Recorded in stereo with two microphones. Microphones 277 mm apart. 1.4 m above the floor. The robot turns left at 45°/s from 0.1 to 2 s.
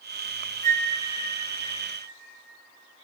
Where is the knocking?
I don't hear knocking.